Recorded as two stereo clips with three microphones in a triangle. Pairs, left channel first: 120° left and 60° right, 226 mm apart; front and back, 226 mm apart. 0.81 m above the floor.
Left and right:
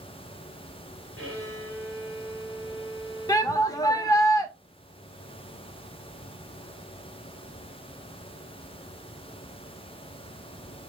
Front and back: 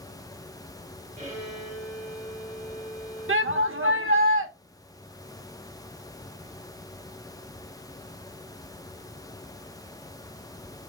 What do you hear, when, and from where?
1.2 s a violin: 120° left, 2.5 m
3.3 s a shout: 165° right, 1.0 m